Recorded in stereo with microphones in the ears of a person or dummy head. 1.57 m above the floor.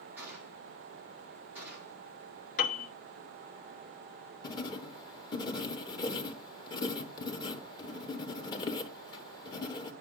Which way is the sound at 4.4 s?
35° left (ahead or behind).